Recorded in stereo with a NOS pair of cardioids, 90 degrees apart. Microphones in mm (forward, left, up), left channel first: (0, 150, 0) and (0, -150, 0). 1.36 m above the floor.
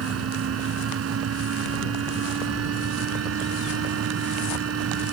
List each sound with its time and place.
0.0 s a fan: 55° right